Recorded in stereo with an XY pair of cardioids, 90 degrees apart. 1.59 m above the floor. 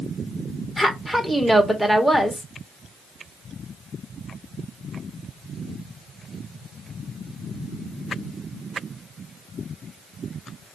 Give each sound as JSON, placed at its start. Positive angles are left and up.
{"t": 0.8, "sound": "a woman speaking", "azimuth_deg": 0, "distance_m": 1.4}